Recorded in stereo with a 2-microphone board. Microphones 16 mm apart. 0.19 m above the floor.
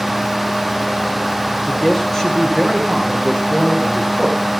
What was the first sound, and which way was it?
A man speaking, 35° left (ahead or behind).